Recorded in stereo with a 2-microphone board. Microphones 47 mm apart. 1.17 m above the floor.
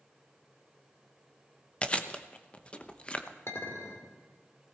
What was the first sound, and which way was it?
Chewing, 25° left (ahead or behind).